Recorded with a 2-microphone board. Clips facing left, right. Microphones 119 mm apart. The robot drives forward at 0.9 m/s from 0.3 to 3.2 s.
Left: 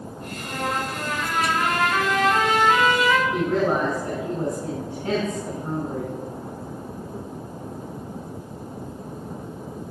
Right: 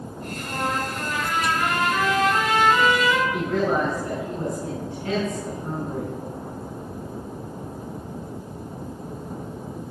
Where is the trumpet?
50° left (ahead or behind), 5.5 m; by 3.2 s 75° left (ahead or behind), 4.5 m.